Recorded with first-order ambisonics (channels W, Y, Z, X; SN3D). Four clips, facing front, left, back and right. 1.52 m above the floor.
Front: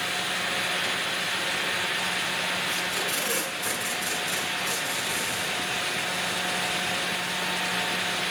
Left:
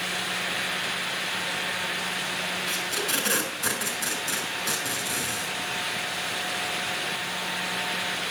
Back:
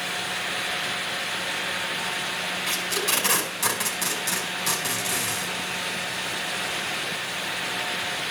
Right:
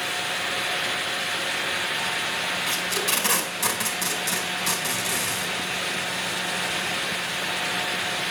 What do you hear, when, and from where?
2.7 s tape being pulled: 135° right, 5 m